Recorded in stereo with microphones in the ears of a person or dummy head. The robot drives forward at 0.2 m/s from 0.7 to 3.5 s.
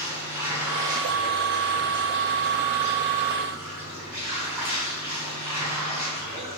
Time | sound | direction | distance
0.0 | running water | 15° right (ahead or behind) | 2 m